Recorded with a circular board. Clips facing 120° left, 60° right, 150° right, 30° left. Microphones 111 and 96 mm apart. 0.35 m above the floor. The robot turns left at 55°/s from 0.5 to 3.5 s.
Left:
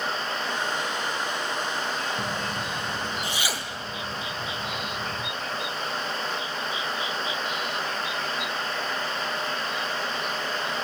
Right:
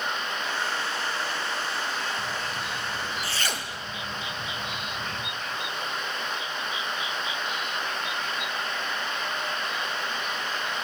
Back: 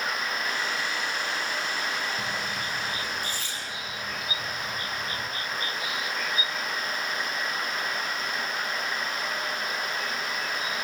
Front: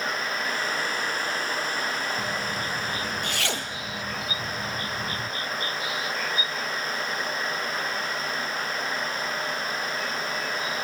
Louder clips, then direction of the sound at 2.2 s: Left 2 dB, front 2 dB; 110° left.